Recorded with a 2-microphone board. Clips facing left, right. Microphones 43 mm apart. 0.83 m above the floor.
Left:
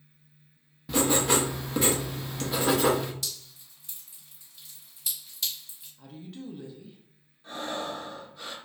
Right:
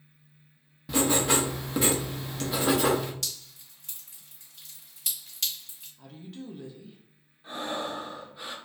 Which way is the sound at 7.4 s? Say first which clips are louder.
Right 1 dB; 15° right (ahead or behind).